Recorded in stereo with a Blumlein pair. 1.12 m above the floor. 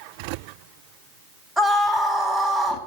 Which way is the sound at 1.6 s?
5° left.